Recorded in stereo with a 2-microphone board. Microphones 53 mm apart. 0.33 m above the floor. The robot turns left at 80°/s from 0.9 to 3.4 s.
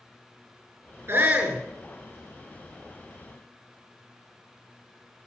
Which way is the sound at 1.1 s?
130° right.